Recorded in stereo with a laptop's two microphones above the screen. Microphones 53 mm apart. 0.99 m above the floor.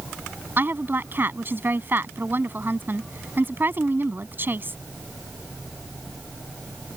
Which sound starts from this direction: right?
A woman speaking, at 0.6 s.